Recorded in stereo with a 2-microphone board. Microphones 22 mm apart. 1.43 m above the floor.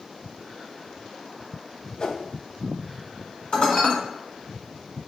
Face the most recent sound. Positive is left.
turn(degrees=70)  # may be behind; listen again after turning